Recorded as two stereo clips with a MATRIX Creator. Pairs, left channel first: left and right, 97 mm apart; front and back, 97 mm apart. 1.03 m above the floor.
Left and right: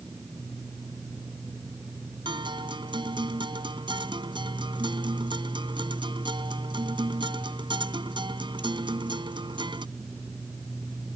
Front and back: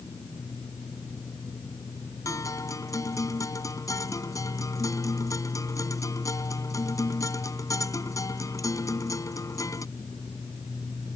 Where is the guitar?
55° right.